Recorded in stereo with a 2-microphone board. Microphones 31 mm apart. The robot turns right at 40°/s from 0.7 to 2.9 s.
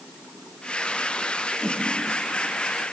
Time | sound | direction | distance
1.6 | a whoosh | 30° right (ahead or behind) | 2.5 m